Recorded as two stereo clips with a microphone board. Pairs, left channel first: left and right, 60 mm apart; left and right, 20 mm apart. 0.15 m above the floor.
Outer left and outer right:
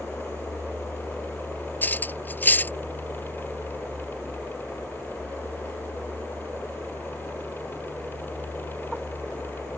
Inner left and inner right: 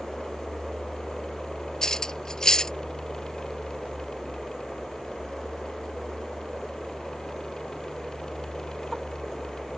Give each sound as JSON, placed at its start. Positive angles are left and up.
{"t": 1.8, "sound": "cutlery clinking", "side_deg": 30}